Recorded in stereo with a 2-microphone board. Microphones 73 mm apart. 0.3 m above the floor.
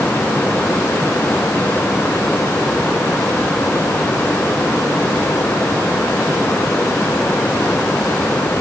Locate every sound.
Only background noise.